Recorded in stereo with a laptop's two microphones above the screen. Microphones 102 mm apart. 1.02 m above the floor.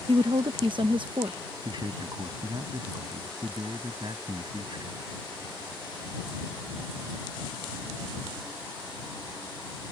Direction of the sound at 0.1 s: 55° right (ahead or behind).